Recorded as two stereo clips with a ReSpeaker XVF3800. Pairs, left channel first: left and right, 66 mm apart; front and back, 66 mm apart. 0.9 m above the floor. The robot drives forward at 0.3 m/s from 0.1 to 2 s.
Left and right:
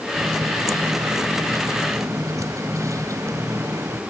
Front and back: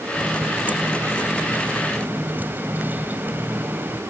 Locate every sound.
0.1 s a running tap: 110° right; by 4.0 s 120° right